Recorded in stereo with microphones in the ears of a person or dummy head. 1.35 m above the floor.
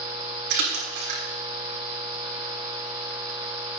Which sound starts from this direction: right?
A splash, at 0.5 s.